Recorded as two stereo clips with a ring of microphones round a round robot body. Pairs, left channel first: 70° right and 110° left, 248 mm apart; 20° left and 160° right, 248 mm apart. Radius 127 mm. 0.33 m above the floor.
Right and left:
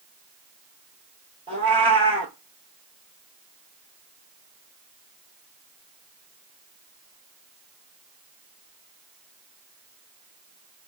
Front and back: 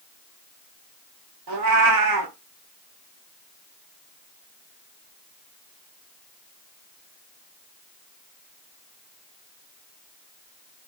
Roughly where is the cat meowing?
Behind.